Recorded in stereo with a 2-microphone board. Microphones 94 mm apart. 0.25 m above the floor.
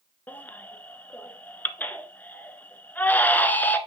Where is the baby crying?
20° left (ahead or behind), 1.0 m.